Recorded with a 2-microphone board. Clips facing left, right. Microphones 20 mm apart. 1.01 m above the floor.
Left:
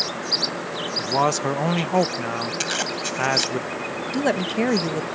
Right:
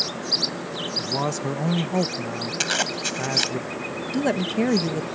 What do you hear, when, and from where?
1.0 s a man speaking: 35° left (ahead or behind)
2.6 s a zipper: 15° right (ahead or behind)
4.1 s a woman speaking: 15° left (ahead or behind)